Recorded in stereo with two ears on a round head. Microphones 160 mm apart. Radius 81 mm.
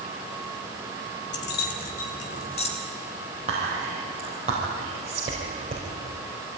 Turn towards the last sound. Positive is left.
turn(degrees=-40)  # may be behind; listen again after turning